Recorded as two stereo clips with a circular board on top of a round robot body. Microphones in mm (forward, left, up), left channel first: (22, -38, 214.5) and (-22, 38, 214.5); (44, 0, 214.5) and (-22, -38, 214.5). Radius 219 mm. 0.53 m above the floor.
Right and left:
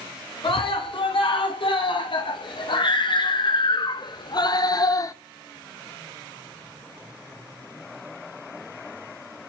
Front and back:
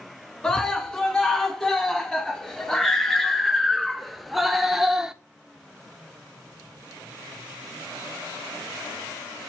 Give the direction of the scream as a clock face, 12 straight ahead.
2 o'clock.